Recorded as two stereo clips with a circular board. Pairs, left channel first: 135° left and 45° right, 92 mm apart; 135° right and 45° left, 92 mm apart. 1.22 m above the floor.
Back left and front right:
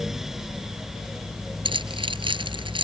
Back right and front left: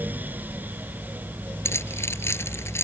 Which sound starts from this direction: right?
Keys jangling, at 1.6 s.